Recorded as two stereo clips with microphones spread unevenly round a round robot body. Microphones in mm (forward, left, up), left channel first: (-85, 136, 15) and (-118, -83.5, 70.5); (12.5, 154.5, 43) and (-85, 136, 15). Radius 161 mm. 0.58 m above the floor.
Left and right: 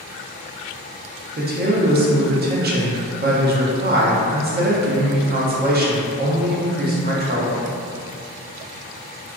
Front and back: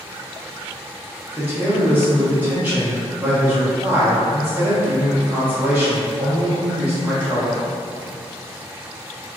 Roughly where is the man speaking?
Behind right.